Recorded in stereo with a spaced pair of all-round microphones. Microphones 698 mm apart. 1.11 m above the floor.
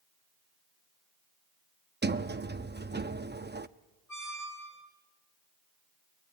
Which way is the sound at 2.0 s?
15° right (ahead or behind).